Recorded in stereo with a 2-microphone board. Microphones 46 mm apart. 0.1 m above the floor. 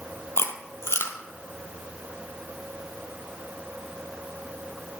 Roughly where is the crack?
No crack in this recording.